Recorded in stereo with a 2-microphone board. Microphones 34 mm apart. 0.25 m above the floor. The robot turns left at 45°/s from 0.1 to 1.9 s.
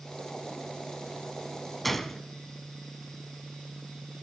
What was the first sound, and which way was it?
A gunshot, centre (ahead or behind).